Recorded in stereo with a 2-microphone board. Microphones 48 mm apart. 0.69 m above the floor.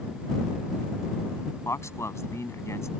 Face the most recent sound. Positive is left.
turn(degrees=80)